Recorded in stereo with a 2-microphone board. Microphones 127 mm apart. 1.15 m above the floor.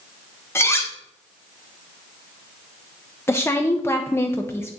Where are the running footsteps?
I don't hear running footsteps.